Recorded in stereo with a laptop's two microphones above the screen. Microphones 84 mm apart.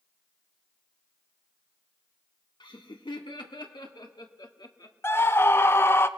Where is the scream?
30° left (ahead or behind), 1.0 m.